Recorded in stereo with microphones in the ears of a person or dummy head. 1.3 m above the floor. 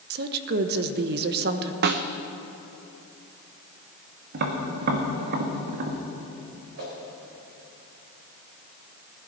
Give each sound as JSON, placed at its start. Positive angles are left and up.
{"t": 0.1, "sound": "a woman speaking", "side_deg": -55, "distance_m": 1.1}
{"t": 1.8, "sound": "a snare drum", "side_deg": -55, "distance_m": 0.7}
{"t": 4.3, "sound": "tapping", "side_deg": -55, "distance_m": 1.5}
{"t": 6.8, "sound": "a whoosh", "side_deg": -55, "distance_m": 3.5}